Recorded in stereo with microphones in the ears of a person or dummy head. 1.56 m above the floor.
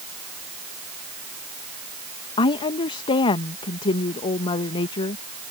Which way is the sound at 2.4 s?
35° left (ahead or behind).